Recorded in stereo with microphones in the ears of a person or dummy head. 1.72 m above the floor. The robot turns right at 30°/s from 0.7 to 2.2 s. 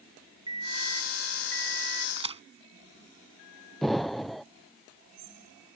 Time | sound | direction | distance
0.5 | an alarm clock | 150° right | ?
2.2 | a crack | 30° right (ahead or behind) | ?
3.8 | an explosion | centre (ahead or behind) | ?